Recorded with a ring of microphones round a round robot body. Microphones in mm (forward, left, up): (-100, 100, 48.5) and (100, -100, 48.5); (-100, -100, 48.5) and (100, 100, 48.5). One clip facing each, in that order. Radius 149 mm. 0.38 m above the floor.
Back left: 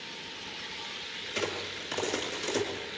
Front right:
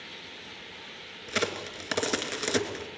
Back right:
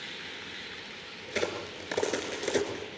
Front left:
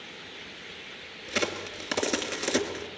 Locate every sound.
1.3 s a crack: 25° right, 2 m